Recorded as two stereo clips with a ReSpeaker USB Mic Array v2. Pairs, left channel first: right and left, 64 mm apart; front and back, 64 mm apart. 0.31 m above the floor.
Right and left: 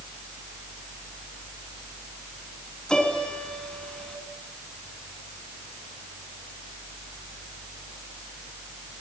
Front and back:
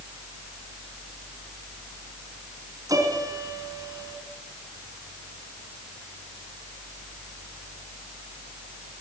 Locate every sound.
2.9 s a piano: 170° right, 3.5 m